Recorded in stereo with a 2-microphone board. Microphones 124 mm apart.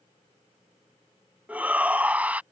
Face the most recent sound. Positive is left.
turn(degrees=-10)  # may be behind; listen again after turning